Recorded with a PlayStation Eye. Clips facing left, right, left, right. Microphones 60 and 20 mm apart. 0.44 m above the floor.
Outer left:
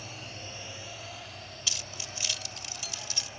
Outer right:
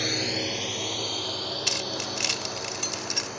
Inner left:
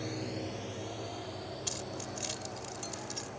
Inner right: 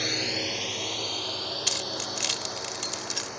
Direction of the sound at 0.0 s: 80° right.